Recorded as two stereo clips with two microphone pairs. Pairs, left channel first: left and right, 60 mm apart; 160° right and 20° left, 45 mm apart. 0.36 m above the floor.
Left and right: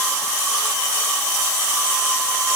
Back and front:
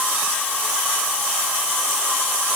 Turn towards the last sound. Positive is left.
No sound to turn to.